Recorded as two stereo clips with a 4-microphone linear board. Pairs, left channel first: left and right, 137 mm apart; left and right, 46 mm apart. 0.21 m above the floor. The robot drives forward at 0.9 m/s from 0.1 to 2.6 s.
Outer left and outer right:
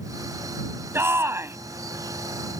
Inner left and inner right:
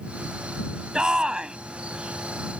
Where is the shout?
20° right (ahead or behind).